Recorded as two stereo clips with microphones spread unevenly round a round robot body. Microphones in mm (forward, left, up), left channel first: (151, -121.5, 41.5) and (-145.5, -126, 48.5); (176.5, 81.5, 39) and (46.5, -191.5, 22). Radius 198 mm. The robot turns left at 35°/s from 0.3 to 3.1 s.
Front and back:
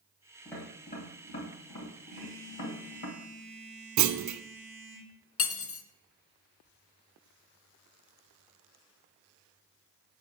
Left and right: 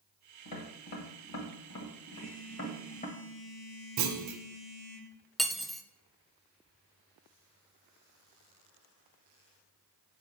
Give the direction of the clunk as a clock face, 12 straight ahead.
5 o'clock.